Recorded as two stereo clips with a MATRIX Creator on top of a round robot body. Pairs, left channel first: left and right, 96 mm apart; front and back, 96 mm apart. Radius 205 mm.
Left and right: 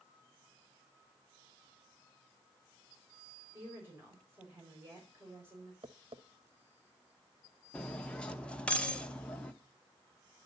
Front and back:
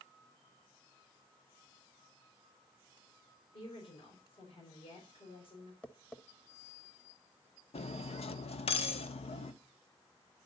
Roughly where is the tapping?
Right.